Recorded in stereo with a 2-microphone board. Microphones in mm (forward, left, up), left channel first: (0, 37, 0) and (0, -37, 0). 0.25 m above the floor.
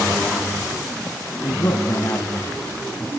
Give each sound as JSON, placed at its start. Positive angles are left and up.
{"t": 1.4, "sound": "a man speaking", "side_deg": 45, "distance_m": 2.5}